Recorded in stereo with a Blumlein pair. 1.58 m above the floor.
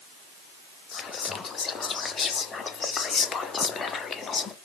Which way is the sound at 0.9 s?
20° left.